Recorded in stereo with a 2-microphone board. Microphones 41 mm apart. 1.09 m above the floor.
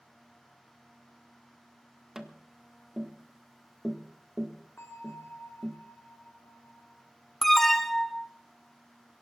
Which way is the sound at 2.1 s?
10° right (ahead or behind).